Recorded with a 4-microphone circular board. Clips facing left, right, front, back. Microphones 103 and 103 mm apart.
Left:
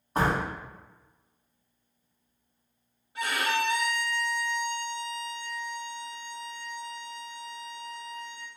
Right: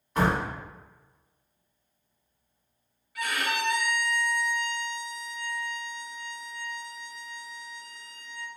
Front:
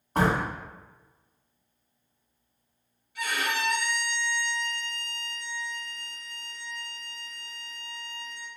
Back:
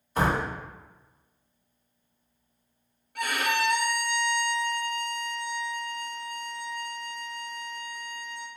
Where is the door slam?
35° left, 1.7 m.